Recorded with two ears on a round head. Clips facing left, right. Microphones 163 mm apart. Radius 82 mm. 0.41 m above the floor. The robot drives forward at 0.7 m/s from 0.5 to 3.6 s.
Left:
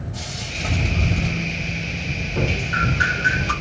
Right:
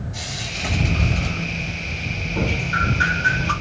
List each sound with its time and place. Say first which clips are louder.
0.1 s frying: even; 15° right (ahead or behind), 3 m; by 2.1 s 10° right (ahead or behind), 4.5 m
2.3 s dripping: even; 20° left (ahead or behind), 0.9 m